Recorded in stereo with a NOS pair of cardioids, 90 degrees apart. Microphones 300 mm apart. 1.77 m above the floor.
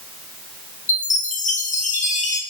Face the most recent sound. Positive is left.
turn(degrees=25)